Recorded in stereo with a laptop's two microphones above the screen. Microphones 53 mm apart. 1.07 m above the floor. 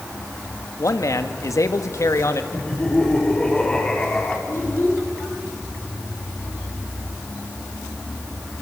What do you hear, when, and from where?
0.8 s a man speaking: 70° left (ahead or behind), 1.8 m; by 2.4 s 65° left (ahead or behind), 1.6 m
2.5 s laughter: 20° left (ahead or behind), 3.5 m
4.5 s a child speaking: 55° left (ahead or behind), 9 m